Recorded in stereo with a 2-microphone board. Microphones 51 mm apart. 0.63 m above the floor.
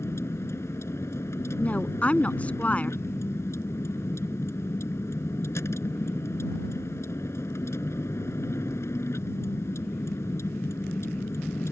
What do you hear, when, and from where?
0.0 s a vehicle: 65° left (ahead or behind)
1.6 s a woman speaking: 25° left (ahead or behind)